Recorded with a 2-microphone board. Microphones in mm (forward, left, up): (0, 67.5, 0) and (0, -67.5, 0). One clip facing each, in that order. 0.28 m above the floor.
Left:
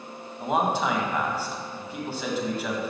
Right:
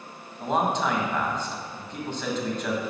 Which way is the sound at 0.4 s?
5° left (ahead or behind).